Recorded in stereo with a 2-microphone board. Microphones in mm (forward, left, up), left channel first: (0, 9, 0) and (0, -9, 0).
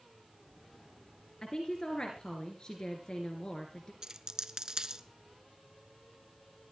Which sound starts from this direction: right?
A dropped coin, at 4.0 s.